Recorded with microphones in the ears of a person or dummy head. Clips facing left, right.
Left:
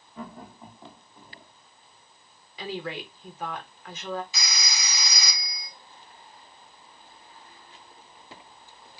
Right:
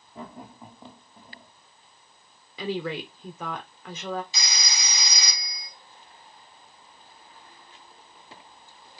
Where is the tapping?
I don't hear tapping.